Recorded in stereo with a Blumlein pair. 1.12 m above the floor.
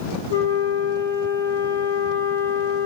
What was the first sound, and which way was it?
A flute, 70° left.